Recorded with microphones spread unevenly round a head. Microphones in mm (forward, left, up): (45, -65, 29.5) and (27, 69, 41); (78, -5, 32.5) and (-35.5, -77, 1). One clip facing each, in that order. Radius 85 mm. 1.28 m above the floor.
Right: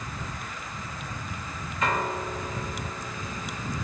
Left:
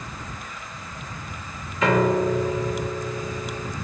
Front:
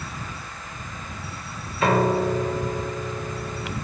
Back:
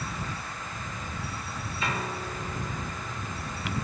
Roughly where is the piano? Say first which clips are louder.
Left 9 dB, front 14 dB; left.